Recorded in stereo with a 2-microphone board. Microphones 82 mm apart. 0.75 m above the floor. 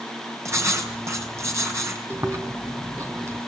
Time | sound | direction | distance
0.5 | writing | 35° right (ahead or behind) | 4.5 m
2.1 | chewing | 35° right (ahead or behind) | 3 m